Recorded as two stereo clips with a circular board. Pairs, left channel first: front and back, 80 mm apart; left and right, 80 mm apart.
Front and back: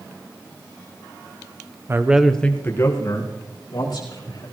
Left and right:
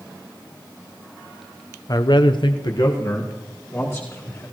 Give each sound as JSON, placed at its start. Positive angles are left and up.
{"t": 1.9, "sound": "a man speaking", "azimuth_deg": 125, "distance_m": 0.8}